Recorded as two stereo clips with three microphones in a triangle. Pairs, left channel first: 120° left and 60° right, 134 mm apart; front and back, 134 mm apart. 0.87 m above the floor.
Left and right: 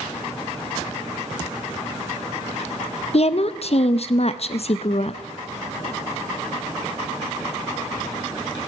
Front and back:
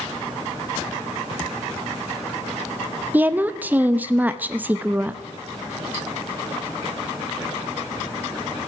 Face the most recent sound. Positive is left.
turn(degrees=105)